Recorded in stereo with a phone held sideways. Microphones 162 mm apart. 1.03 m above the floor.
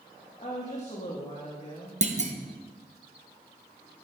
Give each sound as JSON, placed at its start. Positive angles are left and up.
{"t": 0.4, "sound": "a woman speaking", "side_deg": 40, "distance_m": 1.3}
{"t": 2.0, "sound": "a clunk", "side_deg": -45, "distance_m": 0.8}